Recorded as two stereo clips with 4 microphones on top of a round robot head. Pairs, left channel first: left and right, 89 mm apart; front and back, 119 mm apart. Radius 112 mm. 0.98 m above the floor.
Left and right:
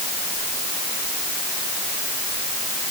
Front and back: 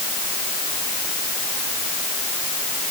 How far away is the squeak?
I don't hear a squeak.